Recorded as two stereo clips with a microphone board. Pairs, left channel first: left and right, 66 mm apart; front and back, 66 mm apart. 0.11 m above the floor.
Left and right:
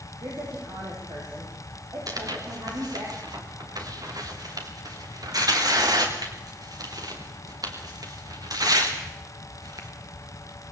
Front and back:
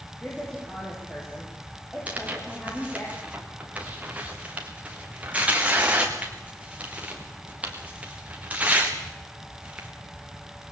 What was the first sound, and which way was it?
A woman speaking, 80° right.